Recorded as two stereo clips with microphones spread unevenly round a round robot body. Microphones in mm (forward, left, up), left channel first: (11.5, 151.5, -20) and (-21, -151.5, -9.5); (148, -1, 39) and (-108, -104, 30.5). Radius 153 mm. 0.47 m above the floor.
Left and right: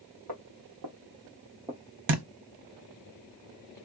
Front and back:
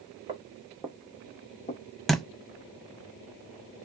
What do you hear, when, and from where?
0.3 s footsteps: 90° right, 1.3 m; by 2.0 s straight ahead, 0.6 m
2.1 s a thud: 65° right, 0.6 m